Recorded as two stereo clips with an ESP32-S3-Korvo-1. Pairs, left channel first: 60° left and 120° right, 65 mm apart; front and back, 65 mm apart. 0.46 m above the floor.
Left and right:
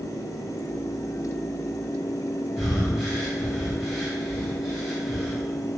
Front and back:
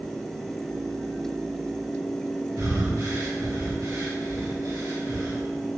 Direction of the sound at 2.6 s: 150° left.